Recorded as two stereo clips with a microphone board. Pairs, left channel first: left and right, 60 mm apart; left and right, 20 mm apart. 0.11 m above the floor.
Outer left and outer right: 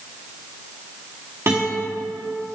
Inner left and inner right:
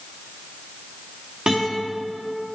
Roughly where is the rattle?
No rattle in this recording.